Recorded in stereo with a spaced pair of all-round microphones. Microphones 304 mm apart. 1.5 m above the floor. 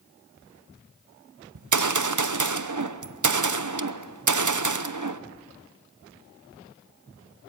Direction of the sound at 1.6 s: 75° right (ahead or behind).